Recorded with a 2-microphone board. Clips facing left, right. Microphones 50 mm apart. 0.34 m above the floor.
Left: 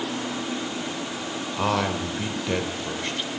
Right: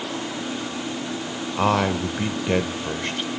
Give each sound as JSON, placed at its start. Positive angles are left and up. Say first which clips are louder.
{"t": 1.6, "sound": "a man speaking", "louder": "right 4 dB", "side_deg": -20, "distance_m": 0.9}